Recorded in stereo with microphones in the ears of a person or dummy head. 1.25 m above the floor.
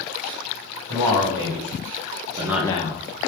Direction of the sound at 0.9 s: 75° right (ahead or behind).